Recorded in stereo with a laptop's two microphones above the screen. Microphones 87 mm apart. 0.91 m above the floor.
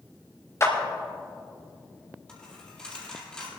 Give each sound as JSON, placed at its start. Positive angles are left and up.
{"t": 0.6, "sound": "a clap", "side_deg": 35, "distance_m": 3.5}
{"t": 2.3, "sound": "a dropped coin", "side_deg": 10, "distance_m": 5.5}